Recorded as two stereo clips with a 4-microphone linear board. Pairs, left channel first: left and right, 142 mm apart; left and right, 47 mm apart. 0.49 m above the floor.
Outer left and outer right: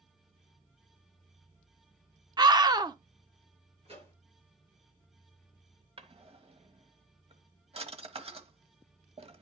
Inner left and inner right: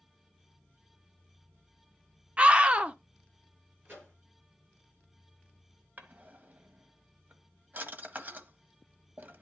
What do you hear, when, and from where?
2.4 s a scream: 30° right (ahead or behind), 0.7 m
3.9 s a microwave: 40° right (ahead or behind), 8.5 m
6.0 s a drawer: 45° right (ahead or behind), 1.0 m